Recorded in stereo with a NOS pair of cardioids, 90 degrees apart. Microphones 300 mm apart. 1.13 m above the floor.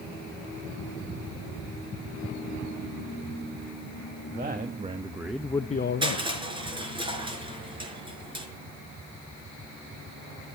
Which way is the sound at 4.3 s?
30° right.